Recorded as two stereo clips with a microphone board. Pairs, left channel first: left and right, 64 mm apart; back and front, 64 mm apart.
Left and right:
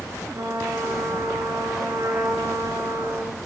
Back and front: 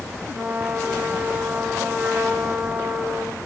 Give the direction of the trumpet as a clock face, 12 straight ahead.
2 o'clock.